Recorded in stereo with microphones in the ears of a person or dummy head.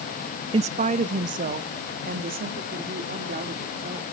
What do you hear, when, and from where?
0.5 s a woman speaking: 25° right (ahead or behind), 0.5 m; by 4.1 s 40° right (ahead or behind), 3.5 m